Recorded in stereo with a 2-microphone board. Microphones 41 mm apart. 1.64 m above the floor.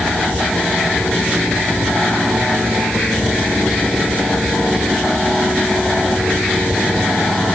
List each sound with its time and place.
Only background noise.